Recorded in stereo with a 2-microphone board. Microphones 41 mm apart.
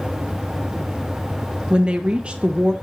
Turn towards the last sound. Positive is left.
turn(degrees=-30)  # may be behind; listen again after turning